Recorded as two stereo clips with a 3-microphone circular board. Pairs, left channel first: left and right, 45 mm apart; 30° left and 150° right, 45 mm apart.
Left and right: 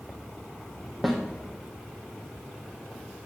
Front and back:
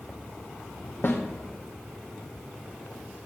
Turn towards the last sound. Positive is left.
turn(degrees=0)